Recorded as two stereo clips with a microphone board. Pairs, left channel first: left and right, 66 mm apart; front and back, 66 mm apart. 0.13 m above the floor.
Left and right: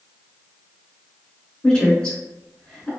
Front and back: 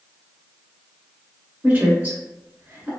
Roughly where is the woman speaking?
Behind left.